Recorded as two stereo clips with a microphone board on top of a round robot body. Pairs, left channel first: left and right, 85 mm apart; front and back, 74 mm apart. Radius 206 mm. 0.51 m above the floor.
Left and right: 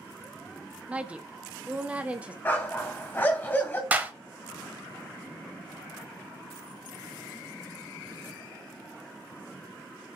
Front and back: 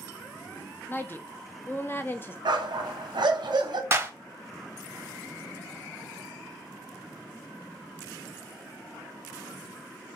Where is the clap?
145° right, 0.9 m.